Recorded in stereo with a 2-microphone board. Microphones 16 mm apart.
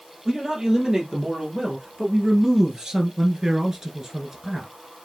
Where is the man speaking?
30° right (ahead or behind), 2.5 m.